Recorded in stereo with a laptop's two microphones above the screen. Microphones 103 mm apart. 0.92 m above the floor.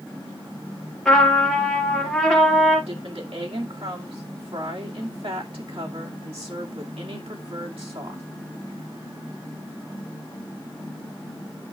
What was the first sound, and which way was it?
A trumpet, 5° left (ahead or behind).